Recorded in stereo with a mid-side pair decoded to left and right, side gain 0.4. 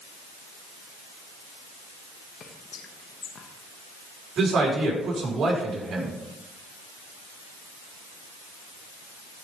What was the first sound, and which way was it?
Whispering, 60° left.